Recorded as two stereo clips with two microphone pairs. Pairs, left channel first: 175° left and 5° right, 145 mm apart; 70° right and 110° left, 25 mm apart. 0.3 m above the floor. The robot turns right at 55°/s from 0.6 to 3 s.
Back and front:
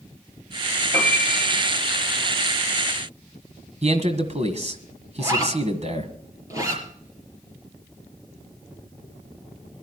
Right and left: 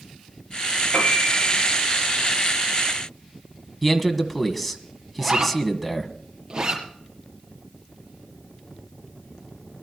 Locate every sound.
0.9 s a piano: 45° right, 4.5 m; by 1.8 s straight ahead, 4.5 m
3.8 s a man speaking: 25° left, 1.8 m
5.2 s a zipper: 60° left, 5.5 m